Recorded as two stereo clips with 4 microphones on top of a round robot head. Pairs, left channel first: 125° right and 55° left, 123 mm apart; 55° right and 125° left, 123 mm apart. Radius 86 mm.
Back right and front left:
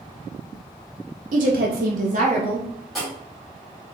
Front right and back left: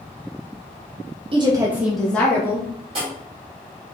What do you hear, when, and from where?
1.3 s a woman speaking: 80° left, 0.7 m; by 2.7 s 15° left, 1.3 m
3.0 s writing: 145° left, 1.6 m